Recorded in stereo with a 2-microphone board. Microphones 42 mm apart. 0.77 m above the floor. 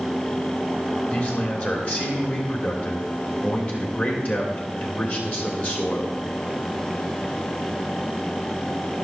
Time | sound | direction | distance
1.1 | a man speaking | 45° left (ahead or behind) | 2.5 m